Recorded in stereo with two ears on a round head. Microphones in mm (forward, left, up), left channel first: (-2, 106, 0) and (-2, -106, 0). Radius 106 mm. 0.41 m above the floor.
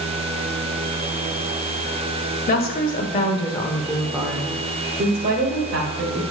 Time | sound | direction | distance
2.5 | a woman speaking | 40° left (ahead or behind) | 1.9 m